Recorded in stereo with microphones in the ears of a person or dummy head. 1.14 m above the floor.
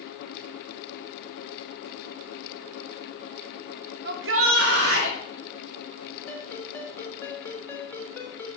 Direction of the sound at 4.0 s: 60° right (ahead or behind).